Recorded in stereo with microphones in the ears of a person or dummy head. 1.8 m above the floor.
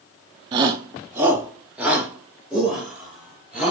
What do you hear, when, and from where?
0.5 s a shout: 25° right (ahead or behind), 0.7 m; by 3.7 s centre (ahead or behind), 3 m